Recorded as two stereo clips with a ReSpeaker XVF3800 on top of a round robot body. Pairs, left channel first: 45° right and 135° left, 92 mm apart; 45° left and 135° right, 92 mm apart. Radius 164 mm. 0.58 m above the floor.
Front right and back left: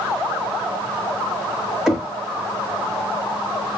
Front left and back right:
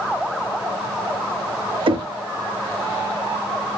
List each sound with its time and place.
1.9 s knocking: 140° right, 1.2 m